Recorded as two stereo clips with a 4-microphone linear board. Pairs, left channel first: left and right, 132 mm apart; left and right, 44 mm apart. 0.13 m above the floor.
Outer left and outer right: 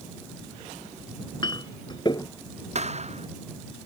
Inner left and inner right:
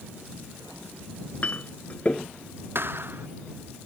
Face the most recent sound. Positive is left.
turn(degrees=-55)  # may be behind; listen again after turning